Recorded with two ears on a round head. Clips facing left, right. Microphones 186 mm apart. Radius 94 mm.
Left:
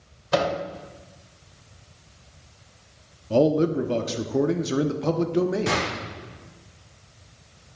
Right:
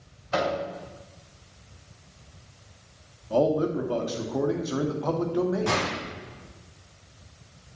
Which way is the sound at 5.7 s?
25° left (ahead or behind).